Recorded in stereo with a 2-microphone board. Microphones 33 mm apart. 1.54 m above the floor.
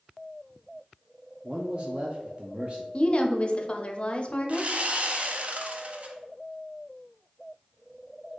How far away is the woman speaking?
About 0.6 m.